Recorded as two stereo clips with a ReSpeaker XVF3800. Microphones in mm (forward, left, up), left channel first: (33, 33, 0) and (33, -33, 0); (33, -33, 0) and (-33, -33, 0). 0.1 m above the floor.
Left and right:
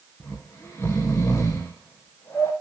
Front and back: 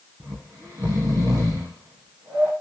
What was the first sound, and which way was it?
Snoring, 145° left.